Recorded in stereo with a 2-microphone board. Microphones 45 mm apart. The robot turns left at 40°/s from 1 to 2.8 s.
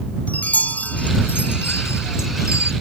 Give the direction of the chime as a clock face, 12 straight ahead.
7 o'clock.